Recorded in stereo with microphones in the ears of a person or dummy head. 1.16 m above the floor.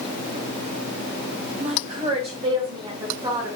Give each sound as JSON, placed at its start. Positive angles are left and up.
{"t": 1.6, "sound": "a woman speaking", "side_deg": -45, "distance_m": 3.5}